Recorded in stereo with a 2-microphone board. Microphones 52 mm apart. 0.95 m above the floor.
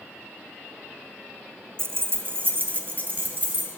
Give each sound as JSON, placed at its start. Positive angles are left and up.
{"t": 1.8, "sound": "keys jangling", "side_deg": -50, "distance_m": 0.5}